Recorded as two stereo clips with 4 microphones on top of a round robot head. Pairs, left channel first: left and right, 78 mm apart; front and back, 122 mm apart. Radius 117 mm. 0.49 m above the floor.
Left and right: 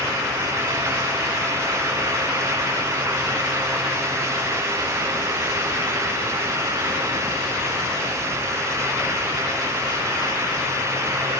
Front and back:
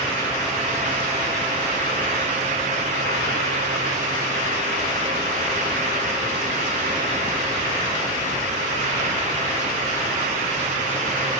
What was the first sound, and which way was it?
Only background noise.